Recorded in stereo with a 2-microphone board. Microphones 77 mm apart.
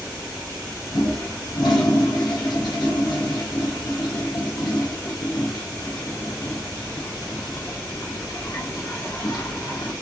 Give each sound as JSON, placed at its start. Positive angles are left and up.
{"t": 0.9, "sound": "a toilet flushing", "side_deg": 70, "distance_m": 1.5}